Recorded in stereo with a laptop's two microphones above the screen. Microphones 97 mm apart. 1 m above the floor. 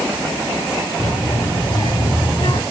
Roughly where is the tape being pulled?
No tape being pulled in this recording.